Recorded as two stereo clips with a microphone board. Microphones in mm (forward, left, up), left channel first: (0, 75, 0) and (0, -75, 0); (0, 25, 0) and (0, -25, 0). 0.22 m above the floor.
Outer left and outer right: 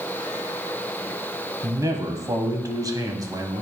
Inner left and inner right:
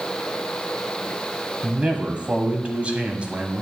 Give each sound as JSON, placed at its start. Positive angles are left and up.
{"t": 1.6, "sound": "a man speaking", "side_deg": -25, "distance_m": 1.2}